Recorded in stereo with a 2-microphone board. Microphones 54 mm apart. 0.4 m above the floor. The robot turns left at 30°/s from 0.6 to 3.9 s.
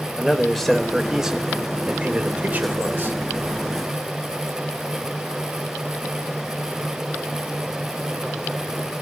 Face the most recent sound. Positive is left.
turn(degrees=-90)